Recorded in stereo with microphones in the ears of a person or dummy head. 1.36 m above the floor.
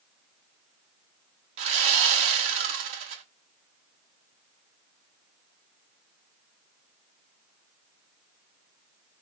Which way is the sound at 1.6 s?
45° right (ahead or behind).